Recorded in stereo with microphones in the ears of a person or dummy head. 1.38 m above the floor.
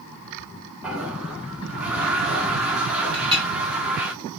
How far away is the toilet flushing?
About 0.7 m.